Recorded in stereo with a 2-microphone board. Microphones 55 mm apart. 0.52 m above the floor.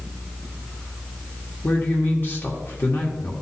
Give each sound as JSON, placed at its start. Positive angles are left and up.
{"t": 1.6, "sound": "a man speaking", "side_deg": 45, "distance_m": 1.3}